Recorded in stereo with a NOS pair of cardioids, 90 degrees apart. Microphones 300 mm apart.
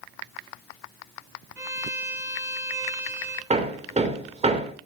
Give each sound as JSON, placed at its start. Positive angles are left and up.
{"t": 1.6, "sound": "a violin", "azimuth_deg": -10, "distance_m": 1.7}
{"t": 3.5, "sound": "hammering", "azimuth_deg": -20, "distance_m": 2.5}